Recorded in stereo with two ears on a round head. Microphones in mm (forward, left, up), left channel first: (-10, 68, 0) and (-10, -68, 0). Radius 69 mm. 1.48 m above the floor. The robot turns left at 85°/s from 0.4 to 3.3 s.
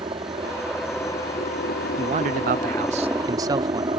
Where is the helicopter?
145° right; by 4.0 s 30° right.